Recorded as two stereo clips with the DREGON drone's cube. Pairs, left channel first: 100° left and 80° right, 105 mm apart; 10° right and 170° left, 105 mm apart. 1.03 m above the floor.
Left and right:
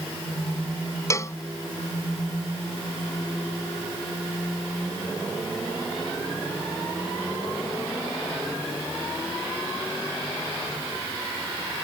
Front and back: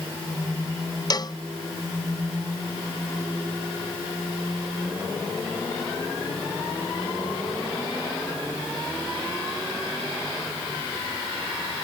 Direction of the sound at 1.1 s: 40° left.